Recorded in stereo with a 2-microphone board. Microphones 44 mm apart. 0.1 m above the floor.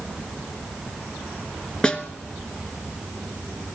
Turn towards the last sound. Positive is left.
turn(degrees=20)  # may be behind; listen again after turning